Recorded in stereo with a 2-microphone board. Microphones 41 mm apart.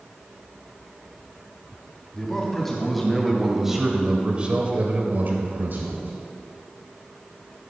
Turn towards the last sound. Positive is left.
turn(degrees=-60)  # may be behind; listen again after turning